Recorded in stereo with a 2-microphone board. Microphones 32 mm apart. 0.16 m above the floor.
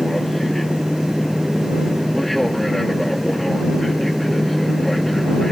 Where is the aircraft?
5° left (ahead or behind).